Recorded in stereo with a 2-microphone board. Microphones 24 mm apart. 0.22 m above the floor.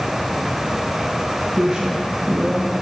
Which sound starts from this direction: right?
A woman speaking, at 1.6 s.